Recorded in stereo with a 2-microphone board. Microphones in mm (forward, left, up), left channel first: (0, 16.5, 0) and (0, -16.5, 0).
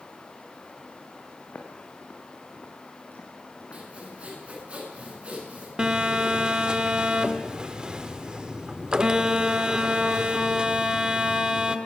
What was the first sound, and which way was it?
Footsteps, 80° left.